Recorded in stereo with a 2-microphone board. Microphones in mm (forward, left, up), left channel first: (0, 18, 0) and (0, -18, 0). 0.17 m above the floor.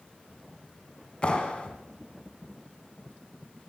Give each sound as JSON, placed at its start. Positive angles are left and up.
{"t": 1.2, "sound": "a clap", "side_deg": 30, "distance_m": 1.5}